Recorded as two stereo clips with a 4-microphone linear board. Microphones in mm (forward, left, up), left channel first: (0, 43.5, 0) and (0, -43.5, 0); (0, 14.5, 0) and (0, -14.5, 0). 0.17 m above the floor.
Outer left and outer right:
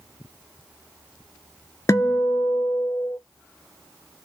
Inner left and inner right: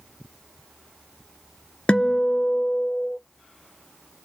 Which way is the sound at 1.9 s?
35° left (ahead or behind).